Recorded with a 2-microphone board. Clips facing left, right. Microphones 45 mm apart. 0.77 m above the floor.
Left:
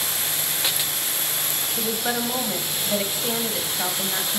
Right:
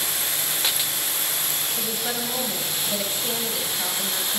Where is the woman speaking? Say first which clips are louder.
Left 6 dB; 20° left (ahead or behind), 3.5 m.